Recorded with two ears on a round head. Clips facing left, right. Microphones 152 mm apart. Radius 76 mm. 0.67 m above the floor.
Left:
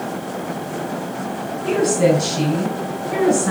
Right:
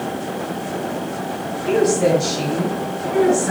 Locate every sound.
1.6 s a woman speaking: 60° left (ahead or behind), 3.5 m